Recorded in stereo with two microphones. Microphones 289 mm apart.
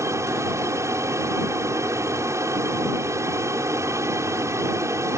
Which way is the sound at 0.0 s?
10° right (ahead or behind).